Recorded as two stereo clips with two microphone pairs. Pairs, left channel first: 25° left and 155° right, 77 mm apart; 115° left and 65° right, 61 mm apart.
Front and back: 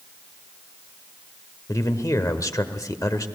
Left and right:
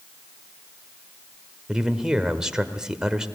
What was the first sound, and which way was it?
A man speaking, 10° left.